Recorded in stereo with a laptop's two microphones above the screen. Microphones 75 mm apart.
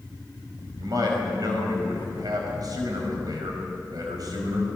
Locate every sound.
0.8 s a man speaking: 60° right (ahead or behind), 5 m